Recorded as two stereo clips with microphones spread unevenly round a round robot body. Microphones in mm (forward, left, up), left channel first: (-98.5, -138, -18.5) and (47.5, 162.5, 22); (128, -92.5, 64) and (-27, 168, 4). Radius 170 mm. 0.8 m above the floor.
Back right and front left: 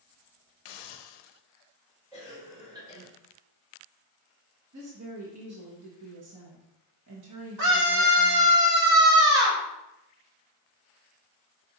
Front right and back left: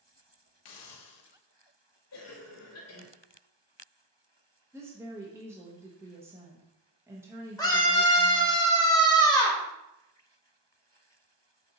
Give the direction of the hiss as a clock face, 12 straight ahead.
3 o'clock.